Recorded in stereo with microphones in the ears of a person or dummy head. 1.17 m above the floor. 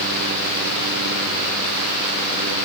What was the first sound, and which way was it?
Only background noise.